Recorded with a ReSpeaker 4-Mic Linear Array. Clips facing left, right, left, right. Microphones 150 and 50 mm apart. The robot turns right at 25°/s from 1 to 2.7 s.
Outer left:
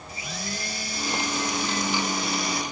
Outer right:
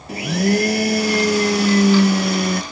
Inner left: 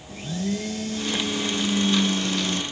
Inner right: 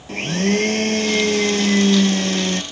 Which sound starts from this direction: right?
A blender, at 0.1 s.